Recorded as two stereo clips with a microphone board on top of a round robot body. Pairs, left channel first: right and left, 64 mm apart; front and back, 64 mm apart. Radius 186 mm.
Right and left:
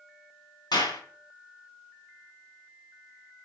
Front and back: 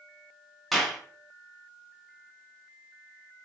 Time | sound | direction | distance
0.7 | a clap | 90° right | 4.5 m